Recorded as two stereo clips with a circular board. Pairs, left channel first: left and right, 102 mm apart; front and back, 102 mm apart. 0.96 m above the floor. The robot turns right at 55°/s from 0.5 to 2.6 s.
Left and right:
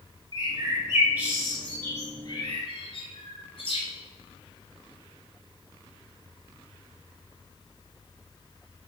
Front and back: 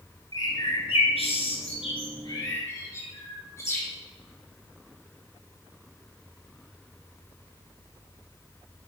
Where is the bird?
55° right, 2.5 m; by 3.9 s 65° left, 2.5 m.